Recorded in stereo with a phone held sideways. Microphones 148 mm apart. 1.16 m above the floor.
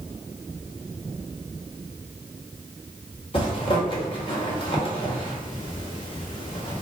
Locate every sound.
3.3 s a zipper: 35° left (ahead or behind), 1.1 m